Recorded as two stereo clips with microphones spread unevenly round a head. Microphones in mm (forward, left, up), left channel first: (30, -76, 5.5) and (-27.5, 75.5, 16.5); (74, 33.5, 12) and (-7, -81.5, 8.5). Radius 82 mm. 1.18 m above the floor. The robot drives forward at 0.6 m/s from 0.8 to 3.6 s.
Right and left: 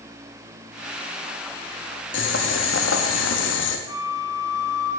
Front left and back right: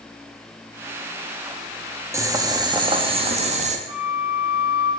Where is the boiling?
55° right, 1.8 m; by 3.8 s 85° right, 1.5 m.